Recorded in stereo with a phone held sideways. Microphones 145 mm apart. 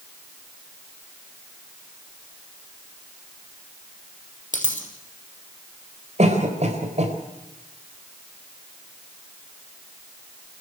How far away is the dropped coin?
About 3 m.